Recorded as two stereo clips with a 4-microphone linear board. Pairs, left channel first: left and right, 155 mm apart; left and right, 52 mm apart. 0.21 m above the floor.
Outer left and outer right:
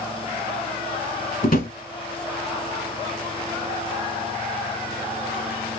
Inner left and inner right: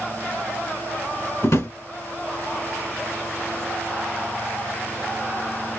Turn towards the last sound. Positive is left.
turn(degrees=60)  # may be behind; listen again after turning